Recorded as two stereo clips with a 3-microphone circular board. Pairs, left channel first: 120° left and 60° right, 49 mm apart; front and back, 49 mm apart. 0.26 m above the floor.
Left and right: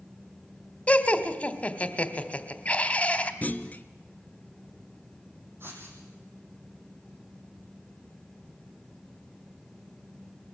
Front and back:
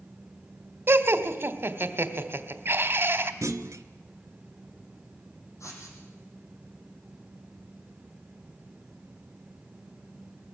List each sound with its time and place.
0.9 s laughter: 175° left, 1.3 m
3.4 s a clunk: 175° left, 0.7 m
5.6 s writing: 20° right, 5 m